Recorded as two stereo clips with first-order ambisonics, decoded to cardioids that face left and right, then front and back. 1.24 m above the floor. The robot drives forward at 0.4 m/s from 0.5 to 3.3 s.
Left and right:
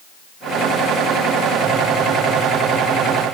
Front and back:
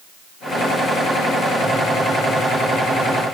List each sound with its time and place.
Only background noise.